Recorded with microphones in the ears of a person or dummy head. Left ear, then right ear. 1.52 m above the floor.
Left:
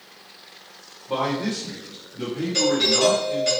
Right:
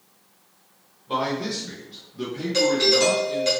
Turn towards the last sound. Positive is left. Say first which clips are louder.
# right 1 dB
turn(degrees=-30)  # may be behind; listen again after turning